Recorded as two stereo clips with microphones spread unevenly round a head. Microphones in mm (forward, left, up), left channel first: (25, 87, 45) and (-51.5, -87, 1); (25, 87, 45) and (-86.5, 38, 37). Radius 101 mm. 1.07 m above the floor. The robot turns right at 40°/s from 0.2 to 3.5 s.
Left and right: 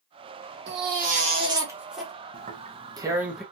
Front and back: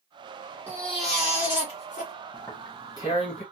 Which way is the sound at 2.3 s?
70° right.